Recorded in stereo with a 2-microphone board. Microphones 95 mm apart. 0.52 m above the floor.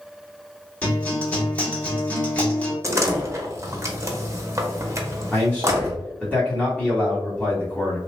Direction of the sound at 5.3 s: 15° left (ahead or behind).